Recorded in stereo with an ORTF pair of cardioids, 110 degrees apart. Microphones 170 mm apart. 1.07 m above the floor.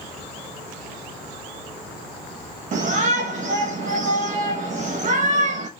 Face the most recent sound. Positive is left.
turn(degrees=-45)